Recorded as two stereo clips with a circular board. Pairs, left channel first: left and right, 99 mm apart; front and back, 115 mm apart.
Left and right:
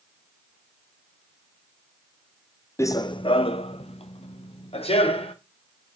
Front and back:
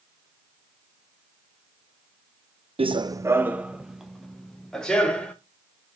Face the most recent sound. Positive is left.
turn(degrees=80)